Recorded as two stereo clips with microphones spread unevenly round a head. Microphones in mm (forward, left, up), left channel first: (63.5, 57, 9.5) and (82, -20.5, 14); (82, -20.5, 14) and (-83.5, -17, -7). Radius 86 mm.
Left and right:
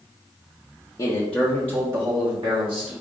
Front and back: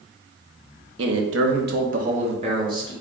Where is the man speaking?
175° left, 0.8 m; by 2.9 s 110° right, 1.1 m.